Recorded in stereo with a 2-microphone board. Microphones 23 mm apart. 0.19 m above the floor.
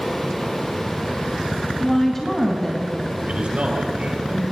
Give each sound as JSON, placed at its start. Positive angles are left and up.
{"t": 1.8, "sound": "a woman speaking", "side_deg": 15, "distance_m": 1.8}
{"t": 3.2, "sound": "a man speaking", "side_deg": -60, "distance_m": 4.5}